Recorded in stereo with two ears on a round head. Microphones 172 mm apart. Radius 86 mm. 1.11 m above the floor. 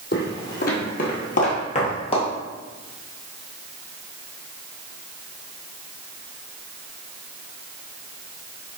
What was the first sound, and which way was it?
Footsteps, 50° left (ahead or behind).